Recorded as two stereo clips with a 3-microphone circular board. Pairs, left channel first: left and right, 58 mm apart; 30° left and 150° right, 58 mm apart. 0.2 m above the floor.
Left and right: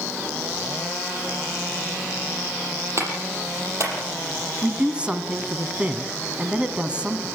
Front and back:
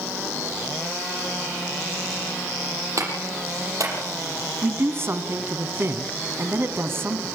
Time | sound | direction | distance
3.0 | a clap | 125° right | 6.5 m
4.6 | a man speaking | 155° right | 1.8 m